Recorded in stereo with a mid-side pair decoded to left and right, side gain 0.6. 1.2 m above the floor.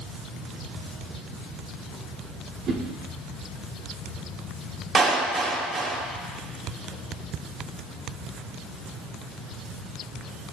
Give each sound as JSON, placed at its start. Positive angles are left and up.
{"t": 2.7, "sound": "a whoosh", "azimuth_deg": -55, "distance_m": 2.0}
{"t": 5.0, "sound": "a clap", "azimuth_deg": -35, "distance_m": 1.7}